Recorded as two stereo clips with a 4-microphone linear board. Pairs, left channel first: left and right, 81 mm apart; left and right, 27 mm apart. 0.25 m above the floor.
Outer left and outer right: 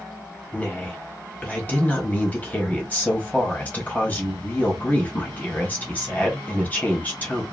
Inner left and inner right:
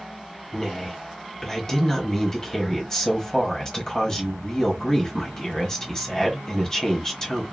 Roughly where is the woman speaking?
Centre.